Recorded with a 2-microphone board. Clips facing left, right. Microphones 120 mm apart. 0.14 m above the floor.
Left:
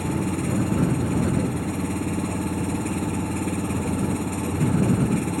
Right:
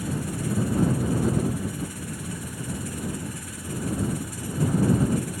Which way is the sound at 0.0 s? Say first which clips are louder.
Left 5 dB; 60° left (ahead or behind).